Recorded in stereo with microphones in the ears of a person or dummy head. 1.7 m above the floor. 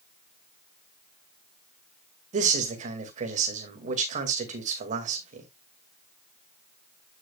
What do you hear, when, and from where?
2.3 s a man speaking: 45° right (ahead or behind), 2 m